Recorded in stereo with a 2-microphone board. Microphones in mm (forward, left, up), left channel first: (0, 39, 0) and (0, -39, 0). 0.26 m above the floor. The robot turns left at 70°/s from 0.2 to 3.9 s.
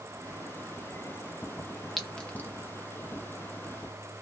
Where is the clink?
Centre (ahead or behind), 0.8 m; by 2.5 s 30° left (ahead or behind), 0.8 m.